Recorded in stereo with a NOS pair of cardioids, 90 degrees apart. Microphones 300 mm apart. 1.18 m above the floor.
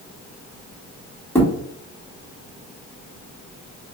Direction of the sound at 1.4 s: 5° left.